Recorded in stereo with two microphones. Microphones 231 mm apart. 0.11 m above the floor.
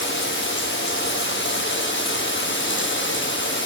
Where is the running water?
55° left (ahead or behind), 0.9 m.